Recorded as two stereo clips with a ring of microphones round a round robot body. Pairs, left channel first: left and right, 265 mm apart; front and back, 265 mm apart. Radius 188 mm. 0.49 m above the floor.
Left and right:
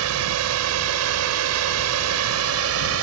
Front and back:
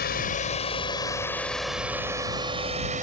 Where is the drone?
60° right; by 3.0 s 115° right.